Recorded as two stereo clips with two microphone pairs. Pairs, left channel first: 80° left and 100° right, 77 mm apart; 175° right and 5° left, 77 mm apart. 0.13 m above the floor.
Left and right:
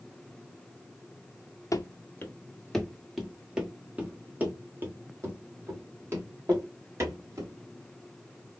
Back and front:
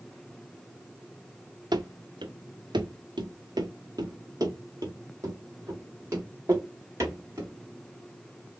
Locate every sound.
1.7 s running footsteps: 30° left, 0.9 m; by 7.5 s 50° right, 3.5 m